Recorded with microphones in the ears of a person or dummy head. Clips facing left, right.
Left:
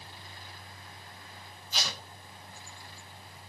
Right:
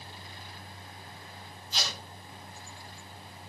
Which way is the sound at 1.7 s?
15° left (ahead or behind).